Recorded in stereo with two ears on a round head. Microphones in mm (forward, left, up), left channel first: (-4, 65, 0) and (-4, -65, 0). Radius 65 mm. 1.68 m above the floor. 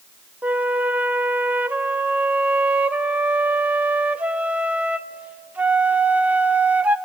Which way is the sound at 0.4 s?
10° right (ahead or behind).